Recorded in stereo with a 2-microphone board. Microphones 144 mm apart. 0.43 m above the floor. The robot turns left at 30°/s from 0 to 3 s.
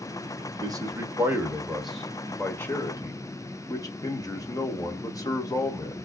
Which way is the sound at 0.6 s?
140° right.